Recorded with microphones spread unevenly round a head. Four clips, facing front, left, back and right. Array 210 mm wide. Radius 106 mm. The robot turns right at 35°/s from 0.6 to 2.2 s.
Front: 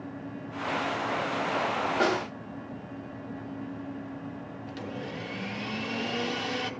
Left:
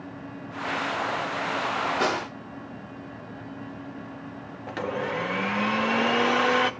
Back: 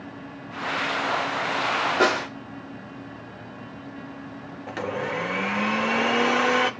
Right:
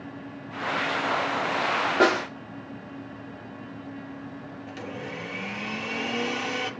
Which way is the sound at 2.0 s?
95° right.